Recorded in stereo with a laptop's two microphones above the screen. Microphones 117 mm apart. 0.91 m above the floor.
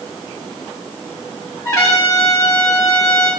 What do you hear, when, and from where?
1.6 s a trumpet: 30° left (ahead or behind), 3 m